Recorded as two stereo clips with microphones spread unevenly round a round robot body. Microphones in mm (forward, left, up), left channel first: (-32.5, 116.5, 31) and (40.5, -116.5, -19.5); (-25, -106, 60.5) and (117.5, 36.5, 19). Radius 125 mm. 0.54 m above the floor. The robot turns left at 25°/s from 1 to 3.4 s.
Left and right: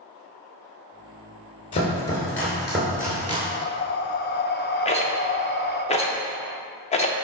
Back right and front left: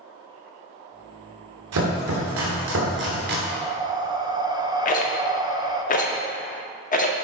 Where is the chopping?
40° left, 2.5 m; by 3.4 s straight ahead, 2.5 m.